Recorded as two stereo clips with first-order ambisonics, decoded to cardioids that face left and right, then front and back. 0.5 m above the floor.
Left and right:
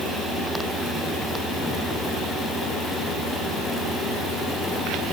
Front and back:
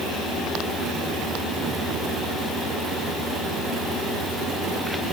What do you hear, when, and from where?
Only background noise.